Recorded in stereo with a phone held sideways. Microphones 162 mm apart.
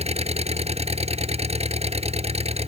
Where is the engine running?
40° right (ahead or behind).